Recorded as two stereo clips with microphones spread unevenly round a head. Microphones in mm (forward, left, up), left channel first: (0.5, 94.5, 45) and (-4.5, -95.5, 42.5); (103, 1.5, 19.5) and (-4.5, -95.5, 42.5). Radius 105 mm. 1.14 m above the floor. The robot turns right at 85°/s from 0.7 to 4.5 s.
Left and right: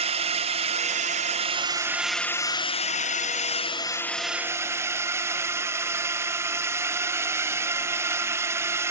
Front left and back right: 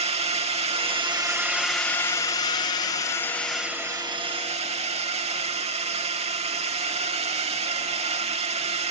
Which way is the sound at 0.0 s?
120° right.